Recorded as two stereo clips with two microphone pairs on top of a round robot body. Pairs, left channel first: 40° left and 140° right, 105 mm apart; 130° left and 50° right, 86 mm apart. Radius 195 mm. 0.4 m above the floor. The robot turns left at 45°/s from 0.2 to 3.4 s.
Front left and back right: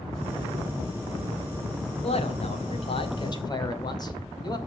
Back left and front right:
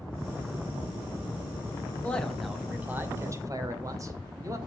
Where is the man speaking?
55° left, 2.5 m; by 4.6 s 5° right, 2.5 m.